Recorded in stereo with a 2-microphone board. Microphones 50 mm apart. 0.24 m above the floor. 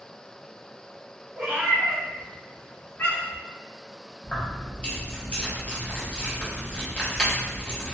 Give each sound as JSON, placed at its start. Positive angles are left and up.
{"t": 1.4, "sound": "a cat meowing", "side_deg": -20, "distance_m": 1.2}
{"t": 4.2, "sound": "keys jangling", "side_deg": 25, "distance_m": 0.9}